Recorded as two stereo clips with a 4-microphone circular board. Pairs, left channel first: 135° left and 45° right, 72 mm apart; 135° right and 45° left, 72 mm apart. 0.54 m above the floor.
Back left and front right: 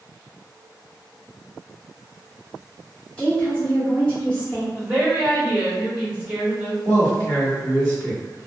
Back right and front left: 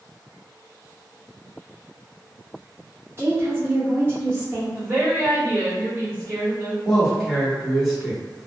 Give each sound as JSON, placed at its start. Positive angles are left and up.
{"t": 3.2, "sound": "a woman speaking", "azimuth_deg": 75, "distance_m": 0.9}
{"t": 4.8, "sound": "a woman speaking", "azimuth_deg": 5, "distance_m": 1.1}
{"t": 6.8, "sound": "a man speaking", "azimuth_deg": -50, "distance_m": 1.7}